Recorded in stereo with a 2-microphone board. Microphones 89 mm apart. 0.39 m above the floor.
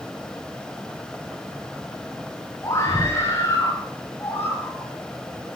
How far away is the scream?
About 6 m.